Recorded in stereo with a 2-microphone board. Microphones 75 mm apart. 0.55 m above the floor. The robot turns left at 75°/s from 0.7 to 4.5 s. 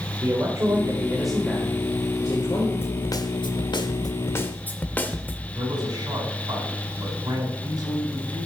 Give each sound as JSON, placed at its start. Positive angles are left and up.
{"t": 0.2, "sound": "a man speaking", "azimuth_deg": -130, "distance_m": 1.6}
{"t": 2.8, "sound": "a snare drum", "azimuth_deg": 150, "distance_m": 0.7}
{"t": 5.5, "sound": "a man speaking", "side_deg": -65, "distance_m": 5.0}